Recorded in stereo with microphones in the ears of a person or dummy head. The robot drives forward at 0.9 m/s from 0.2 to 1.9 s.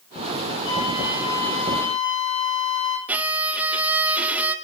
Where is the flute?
85° left, 9.5 m; by 3.0 s 80° left, 9.5 m.